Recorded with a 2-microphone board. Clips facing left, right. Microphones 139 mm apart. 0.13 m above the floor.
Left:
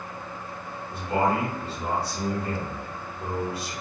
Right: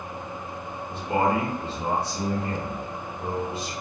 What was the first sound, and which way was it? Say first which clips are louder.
A man speaking: right 1 dB; 25° right (ahead or behind).